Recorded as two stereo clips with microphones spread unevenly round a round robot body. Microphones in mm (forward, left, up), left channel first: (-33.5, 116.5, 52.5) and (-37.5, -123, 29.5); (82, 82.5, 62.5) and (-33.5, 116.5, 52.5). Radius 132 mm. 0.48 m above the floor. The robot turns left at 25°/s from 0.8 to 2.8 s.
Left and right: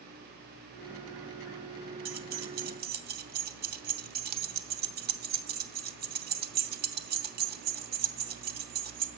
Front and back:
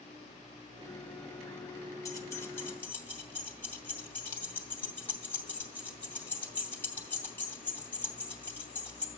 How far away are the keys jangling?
About 0.7 m.